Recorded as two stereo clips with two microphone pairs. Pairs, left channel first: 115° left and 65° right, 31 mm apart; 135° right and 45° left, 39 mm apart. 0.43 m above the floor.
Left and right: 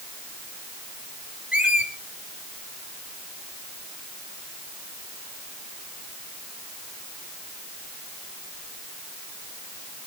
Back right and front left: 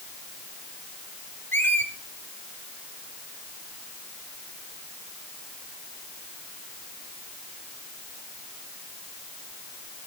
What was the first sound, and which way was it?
A squeak, 120° right.